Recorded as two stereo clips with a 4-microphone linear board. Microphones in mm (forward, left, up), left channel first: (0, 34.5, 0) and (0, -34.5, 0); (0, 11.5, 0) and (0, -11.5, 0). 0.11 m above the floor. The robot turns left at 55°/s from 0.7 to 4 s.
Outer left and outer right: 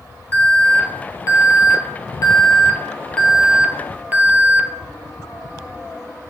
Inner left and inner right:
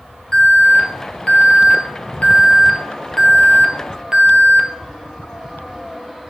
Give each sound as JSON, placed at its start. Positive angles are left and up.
{"t": 0.3, "sound": "an alarm", "azimuth_deg": 150, "distance_m": 1.5}